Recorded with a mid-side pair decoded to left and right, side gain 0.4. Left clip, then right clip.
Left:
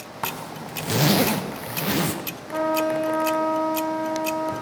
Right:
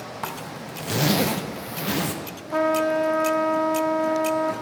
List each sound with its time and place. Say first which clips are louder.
0.2 s a zipper: left 4 dB; 15° left, 1.0 m
2.5 s a trumpet: right 2 dB; 35° right, 1.0 m